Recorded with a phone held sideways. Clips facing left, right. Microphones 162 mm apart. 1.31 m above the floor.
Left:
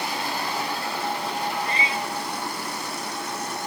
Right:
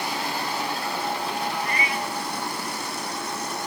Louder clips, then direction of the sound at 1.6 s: Even; 25° left (ahead or behind).